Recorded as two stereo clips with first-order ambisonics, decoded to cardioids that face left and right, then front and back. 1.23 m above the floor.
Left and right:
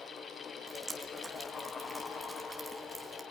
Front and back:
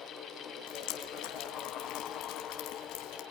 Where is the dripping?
5° right, 3.5 m.